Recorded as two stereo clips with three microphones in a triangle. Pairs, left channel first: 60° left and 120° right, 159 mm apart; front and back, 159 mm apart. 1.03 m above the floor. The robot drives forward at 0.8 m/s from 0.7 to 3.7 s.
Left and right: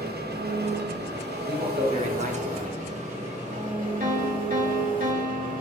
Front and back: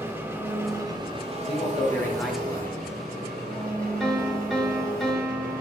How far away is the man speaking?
About 1.1 m.